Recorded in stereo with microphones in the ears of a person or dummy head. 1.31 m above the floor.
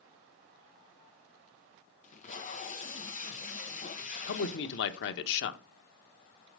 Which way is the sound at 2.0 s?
40° left (ahead or behind).